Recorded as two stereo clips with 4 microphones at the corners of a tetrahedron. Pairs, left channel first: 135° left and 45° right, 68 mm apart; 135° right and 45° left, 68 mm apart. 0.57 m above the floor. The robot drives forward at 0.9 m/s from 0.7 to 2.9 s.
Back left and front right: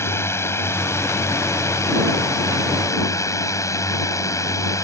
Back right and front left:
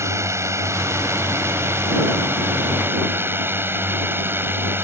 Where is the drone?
90° left; by 4.8 s 100° left.